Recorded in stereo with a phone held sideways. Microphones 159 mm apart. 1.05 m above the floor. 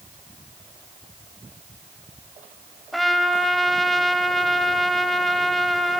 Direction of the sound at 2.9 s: Centre (ahead or behind).